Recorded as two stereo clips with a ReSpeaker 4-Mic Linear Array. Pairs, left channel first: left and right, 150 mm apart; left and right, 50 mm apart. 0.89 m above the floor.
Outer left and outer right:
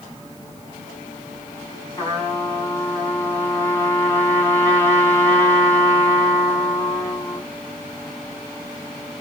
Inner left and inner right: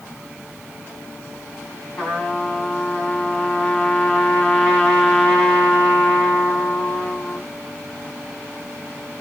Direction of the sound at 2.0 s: 15° left (ahead or behind).